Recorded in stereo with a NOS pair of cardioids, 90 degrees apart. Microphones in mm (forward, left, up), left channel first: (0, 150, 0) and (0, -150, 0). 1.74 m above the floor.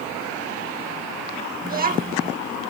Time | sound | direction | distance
1.6 | a child speaking | 30° right | 1.9 m